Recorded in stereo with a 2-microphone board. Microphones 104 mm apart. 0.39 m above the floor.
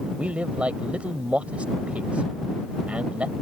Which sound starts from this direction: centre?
A man speaking, at 0.2 s.